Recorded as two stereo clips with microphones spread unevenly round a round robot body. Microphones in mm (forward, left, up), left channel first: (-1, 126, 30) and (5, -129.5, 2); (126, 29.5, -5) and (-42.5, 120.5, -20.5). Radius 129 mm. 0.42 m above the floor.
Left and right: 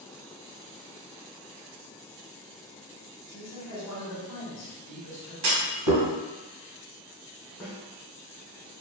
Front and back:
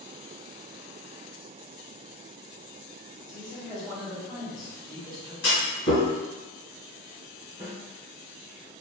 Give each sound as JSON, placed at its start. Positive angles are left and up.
{"t": 3.3, "sound": "a man speaking", "azimuth_deg": 65, "distance_m": 1.7}
{"t": 5.4, "sound": "a clunk", "azimuth_deg": -80, "distance_m": 1.2}
{"t": 7.6, "sound": "a snare drum", "azimuth_deg": 165, "distance_m": 1.3}